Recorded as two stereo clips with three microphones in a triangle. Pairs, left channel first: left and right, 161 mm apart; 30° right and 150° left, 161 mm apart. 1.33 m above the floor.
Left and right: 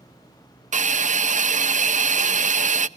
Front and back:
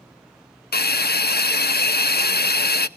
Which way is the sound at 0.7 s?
45° right.